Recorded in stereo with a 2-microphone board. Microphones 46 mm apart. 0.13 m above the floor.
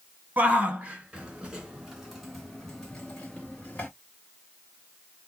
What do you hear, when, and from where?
0.4 s a shout: 30° right (ahead or behind), 1.9 m; by 3.9 s 30° left (ahead or behind), 1.5 m